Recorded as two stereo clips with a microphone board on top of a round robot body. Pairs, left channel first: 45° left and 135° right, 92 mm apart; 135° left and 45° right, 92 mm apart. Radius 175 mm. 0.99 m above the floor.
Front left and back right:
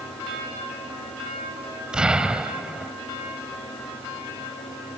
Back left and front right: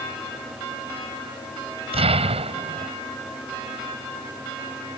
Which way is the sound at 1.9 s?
55° right.